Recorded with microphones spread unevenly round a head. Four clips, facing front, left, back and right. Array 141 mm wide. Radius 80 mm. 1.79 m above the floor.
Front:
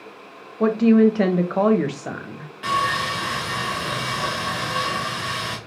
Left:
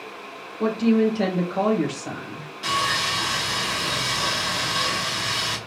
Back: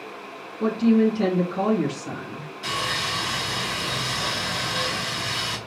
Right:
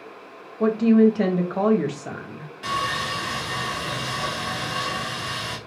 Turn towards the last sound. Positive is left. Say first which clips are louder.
# left 1 dB, front 7 dB
turn(degrees=-15)